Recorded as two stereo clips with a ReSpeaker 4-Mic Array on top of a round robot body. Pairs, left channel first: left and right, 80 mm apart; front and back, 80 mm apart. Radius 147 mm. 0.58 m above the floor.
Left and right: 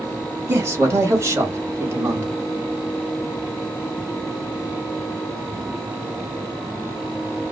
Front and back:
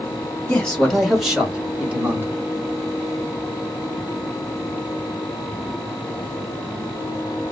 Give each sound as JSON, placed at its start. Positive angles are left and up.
{"t": 0.5, "sound": "a man speaking", "azimuth_deg": -65, "distance_m": 1.4}